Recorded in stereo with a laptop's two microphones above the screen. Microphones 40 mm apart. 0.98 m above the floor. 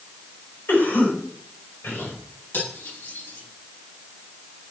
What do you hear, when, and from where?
0.7 s a cough: 70° left (ahead or behind), 5.5 m
2.5 s cutlery clinking: 85° left, 5.5 m